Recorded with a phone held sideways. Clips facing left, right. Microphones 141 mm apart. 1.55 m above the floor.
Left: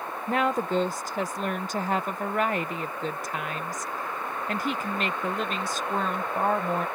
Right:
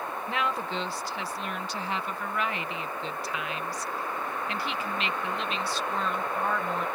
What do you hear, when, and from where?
0.3 s a woman speaking: 45° left (ahead or behind)